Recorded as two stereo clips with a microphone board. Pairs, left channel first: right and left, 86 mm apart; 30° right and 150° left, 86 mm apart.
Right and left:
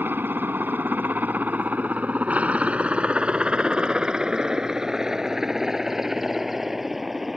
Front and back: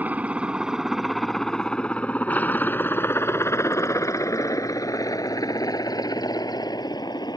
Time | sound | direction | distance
0.0 | a helicopter | 110° left | ?